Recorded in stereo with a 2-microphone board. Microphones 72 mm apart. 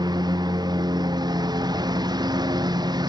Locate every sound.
0.0 s a lawn mower: 90° right